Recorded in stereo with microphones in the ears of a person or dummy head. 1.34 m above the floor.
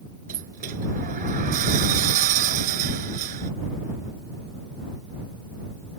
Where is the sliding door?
45° right (ahead or behind).